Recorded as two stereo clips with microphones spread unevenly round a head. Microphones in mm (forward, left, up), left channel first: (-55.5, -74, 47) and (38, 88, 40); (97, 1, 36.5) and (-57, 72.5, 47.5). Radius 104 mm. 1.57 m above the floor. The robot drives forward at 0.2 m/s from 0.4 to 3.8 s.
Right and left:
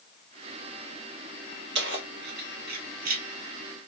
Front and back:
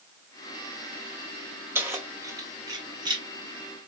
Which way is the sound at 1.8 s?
85° left.